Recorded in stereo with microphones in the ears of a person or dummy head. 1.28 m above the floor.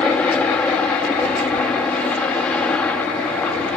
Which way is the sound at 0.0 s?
10° left (ahead or behind).